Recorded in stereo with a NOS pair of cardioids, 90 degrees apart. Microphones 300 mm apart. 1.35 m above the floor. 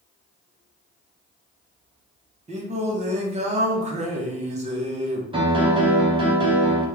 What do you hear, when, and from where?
2.5 s singing: 25° right, 0.8 m
5.3 s a piano: 15° right, 1.0 m